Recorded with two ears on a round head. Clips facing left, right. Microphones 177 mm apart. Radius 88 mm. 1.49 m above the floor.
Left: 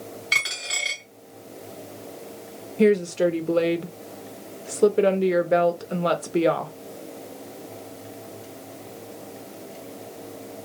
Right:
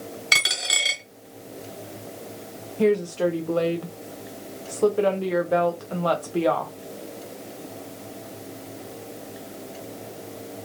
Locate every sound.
0.3 s a dropped coin: 60° right (ahead or behind), 2.0 m
2.8 s a woman speaking: 25° left (ahead or behind), 0.7 m